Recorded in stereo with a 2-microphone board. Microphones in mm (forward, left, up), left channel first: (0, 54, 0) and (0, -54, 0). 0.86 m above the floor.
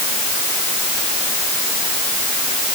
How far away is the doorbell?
I don't hear a doorbell.